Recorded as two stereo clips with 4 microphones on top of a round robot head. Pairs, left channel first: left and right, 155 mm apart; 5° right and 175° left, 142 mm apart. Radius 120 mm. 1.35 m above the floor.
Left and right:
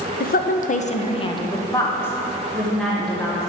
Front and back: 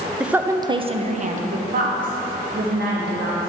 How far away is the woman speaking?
About 0.6 m.